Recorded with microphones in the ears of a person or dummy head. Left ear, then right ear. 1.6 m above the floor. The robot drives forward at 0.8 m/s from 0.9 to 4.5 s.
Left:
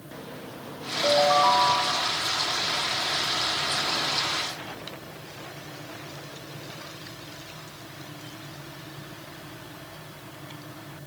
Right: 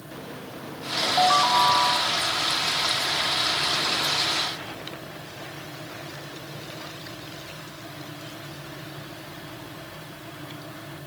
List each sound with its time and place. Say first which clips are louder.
1.0 s a ringtone: even; 15° right (ahead or behind), 1.8 m; by 2.1 s 20° right (ahead or behind), 1.2 m